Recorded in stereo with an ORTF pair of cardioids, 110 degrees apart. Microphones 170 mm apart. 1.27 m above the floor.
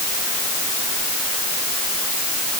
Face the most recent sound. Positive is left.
No sound to turn to.